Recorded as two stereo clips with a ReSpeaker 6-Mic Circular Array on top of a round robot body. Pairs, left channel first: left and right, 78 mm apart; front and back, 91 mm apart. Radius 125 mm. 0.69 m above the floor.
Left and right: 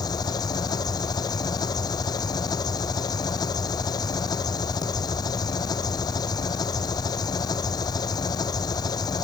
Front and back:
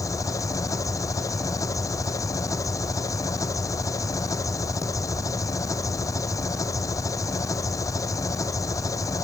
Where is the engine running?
55° left.